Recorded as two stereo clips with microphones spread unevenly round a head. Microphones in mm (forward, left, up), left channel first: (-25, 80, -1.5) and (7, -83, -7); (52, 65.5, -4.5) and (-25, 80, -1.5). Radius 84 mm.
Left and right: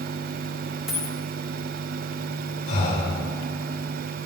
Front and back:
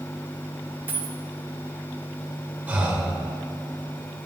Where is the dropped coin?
165° right, 1.0 m.